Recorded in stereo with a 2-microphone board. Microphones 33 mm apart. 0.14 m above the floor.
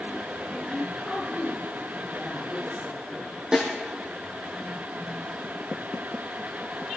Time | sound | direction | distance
0.7 | a woman speaking | 5° right (ahead or behind) | 10 m
3.5 | a snare drum | 25° right (ahead or behind) | 4.5 m